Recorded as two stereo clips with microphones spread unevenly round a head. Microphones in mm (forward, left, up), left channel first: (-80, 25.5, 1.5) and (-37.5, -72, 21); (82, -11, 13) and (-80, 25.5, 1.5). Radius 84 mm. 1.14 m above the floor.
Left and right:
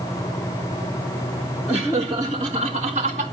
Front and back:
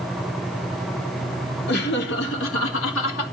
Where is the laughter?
15° left, 3 m; by 3.2 s 20° right, 3 m.